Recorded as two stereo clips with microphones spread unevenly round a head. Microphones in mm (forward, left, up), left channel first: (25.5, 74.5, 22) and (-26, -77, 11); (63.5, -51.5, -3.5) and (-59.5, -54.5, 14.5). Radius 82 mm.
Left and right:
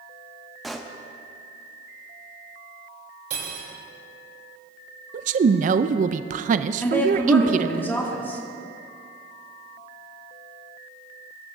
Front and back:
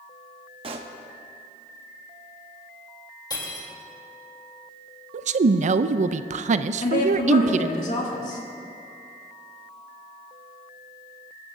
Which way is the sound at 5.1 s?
155° right.